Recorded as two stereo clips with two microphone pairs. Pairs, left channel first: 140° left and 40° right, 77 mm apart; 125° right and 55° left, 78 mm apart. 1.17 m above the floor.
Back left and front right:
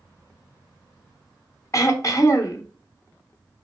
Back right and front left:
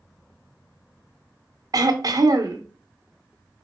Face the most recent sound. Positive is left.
turn(degrees=95)